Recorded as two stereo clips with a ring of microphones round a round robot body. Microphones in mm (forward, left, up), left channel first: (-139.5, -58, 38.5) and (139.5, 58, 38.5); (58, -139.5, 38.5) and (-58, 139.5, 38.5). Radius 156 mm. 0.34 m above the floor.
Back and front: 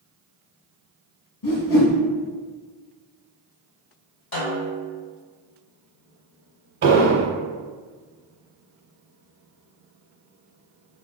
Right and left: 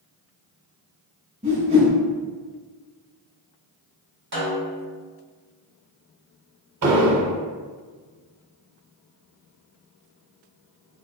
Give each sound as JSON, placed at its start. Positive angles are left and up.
{"t": 1.4, "sound": "a whoosh", "azimuth_deg": -175, "distance_m": 1.1}
{"t": 4.3, "sound": "a snare drum", "azimuth_deg": 160, "distance_m": 1.9}
{"t": 6.8, "sound": "an explosion", "azimuth_deg": 70, "distance_m": 0.8}